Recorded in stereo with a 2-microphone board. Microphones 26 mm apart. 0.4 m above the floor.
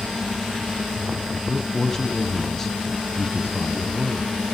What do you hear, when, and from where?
1.3 s a man speaking: 15° left (ahead or behind), 2.5 m